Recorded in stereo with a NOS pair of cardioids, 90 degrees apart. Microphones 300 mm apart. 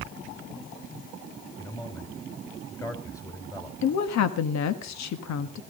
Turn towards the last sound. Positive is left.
turn(degrees=70)